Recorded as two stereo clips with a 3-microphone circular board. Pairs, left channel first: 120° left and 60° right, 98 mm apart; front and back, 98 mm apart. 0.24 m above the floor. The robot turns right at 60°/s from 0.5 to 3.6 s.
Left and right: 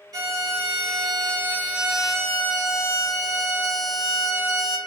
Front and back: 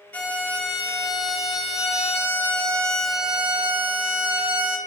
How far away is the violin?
About 0.5 m.